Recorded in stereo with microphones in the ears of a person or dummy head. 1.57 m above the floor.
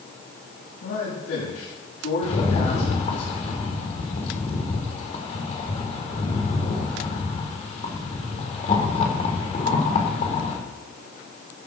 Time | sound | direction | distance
0.8 | a man speaking | 80° left | 9 m
2.2 | a rattle | 45° left (ahead or behind) | 4 m